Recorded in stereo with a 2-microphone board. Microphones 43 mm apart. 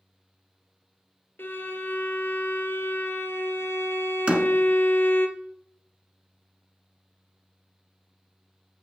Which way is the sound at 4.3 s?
30° right (ahead or behind).